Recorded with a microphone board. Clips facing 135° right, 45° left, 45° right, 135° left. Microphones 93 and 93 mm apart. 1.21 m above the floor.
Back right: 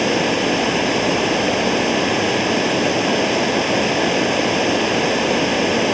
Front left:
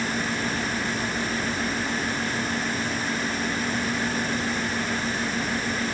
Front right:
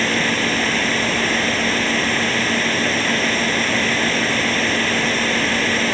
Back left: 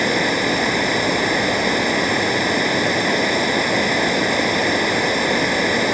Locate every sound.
0.0 s running water: 150° right